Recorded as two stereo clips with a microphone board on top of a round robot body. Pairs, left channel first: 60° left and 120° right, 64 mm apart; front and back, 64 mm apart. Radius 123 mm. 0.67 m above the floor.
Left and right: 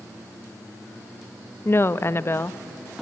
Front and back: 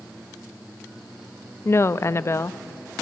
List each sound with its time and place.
1.6 s a woman speaking: 25° left, 0.7 m